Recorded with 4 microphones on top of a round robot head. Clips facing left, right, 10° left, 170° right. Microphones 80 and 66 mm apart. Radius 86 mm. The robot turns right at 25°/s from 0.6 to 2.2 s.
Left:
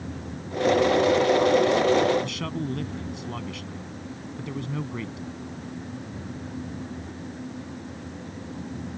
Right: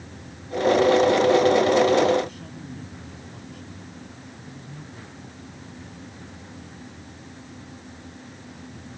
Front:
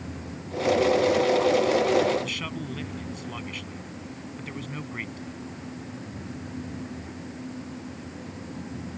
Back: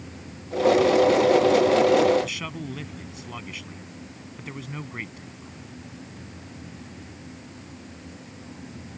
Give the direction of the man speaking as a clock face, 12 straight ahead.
8 o'clock.